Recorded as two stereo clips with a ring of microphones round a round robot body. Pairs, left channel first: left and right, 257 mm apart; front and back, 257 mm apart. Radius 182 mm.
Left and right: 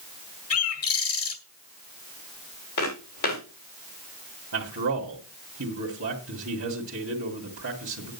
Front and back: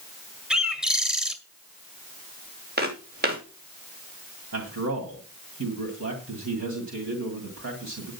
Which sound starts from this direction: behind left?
Footsteps, at 2.8 s.